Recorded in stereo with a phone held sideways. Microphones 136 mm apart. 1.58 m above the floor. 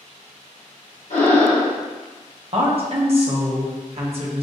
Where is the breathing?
60° left (ahead or behind), 1.8 m.